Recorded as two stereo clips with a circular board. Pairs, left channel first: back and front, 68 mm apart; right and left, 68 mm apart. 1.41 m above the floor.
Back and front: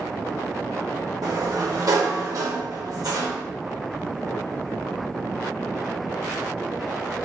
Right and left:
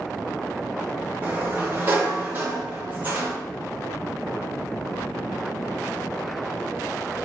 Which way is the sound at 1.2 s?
30° left.